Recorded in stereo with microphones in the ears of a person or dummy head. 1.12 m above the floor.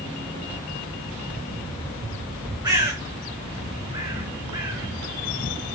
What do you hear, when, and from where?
2.6 s a bird: 20° right (ahead or behind), 4 m